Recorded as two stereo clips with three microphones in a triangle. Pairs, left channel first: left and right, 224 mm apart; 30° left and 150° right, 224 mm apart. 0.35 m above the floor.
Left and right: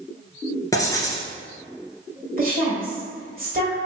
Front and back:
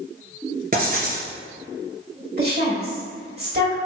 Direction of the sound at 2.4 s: 125° right.